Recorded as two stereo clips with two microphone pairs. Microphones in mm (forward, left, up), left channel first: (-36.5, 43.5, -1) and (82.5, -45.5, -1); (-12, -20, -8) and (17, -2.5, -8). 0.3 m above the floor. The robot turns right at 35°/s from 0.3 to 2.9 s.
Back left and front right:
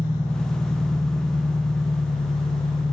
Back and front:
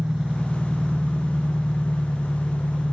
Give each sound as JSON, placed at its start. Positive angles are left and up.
{"t": 0.0, "sound": "an engine running", "azimuth_deg": 105, "distance_m": 3.5}